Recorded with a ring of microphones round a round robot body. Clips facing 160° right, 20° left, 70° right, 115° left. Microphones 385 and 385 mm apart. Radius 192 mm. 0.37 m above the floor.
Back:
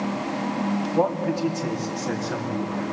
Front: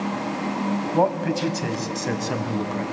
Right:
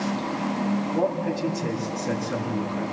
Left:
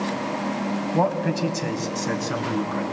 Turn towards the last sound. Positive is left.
turn(degrees=40)